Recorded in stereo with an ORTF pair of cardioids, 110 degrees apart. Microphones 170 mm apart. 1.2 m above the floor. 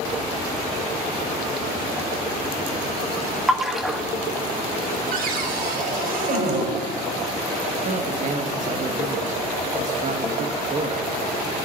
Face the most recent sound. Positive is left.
turn(degrees=-45)